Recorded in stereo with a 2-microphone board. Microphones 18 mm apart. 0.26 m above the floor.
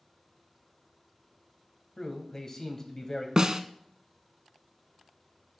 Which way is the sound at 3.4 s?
30° right (ahead or behind).